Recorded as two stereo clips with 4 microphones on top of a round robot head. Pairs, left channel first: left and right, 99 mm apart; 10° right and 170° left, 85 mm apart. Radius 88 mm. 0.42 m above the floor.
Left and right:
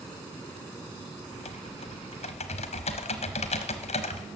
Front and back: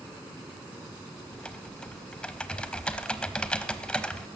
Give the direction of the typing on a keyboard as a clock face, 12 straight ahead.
10 o'clock.